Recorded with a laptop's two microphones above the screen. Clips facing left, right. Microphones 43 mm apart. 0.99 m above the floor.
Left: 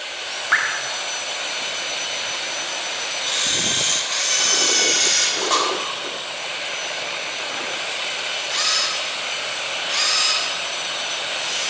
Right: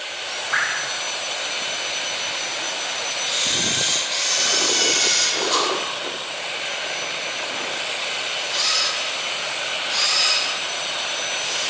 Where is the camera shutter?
65° left (ahead or behind), 3 m.